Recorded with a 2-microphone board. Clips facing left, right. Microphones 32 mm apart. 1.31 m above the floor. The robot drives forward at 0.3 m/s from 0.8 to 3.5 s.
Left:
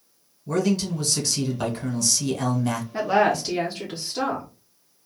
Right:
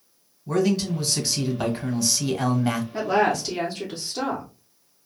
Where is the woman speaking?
10° left (ahead or behind), 0.6 m; by 4.5 s 5° left (ahead or behind), 0.7 m.